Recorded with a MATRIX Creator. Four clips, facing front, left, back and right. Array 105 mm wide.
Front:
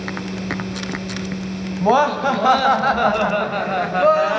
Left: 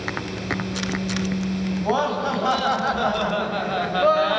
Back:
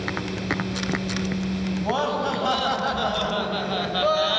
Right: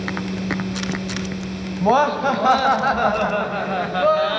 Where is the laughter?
35° right, 2.5 m; by 4.4 s 5° left, 1.6 m.